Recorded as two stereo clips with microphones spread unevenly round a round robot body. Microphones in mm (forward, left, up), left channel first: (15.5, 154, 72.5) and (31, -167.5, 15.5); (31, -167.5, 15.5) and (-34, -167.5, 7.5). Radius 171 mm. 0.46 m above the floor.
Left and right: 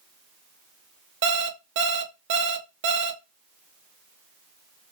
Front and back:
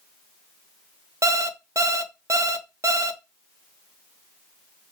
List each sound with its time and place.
1.2 s an alarm clock: 140° right, 0.6 m